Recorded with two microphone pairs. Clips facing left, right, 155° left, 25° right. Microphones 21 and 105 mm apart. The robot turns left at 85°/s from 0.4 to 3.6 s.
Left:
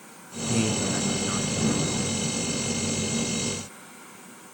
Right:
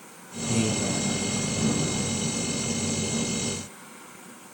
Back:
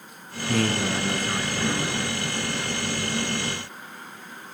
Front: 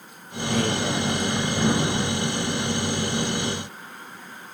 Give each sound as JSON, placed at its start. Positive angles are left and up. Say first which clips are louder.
{"t": 0.5, "sound": "a man speaking", "louder": "even, even", "azimuth_deg": -170, "distance_m": 6.0}